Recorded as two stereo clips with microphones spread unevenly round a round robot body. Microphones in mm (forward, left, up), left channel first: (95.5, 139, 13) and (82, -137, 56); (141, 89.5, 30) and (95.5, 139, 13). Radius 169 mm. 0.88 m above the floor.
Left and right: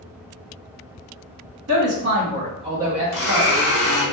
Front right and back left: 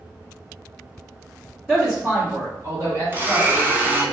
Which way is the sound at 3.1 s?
75° left.